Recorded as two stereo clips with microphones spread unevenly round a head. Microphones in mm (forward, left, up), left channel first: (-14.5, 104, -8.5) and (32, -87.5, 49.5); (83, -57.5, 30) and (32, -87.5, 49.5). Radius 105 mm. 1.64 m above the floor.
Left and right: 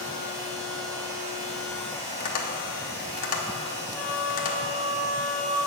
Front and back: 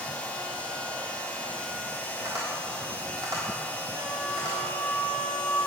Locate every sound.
0.0 s a machine running: 45° right, 2 m
2.2 s tapping: 160° left, 1.4 m
3.9 s a flute: 160° left, 1.8 m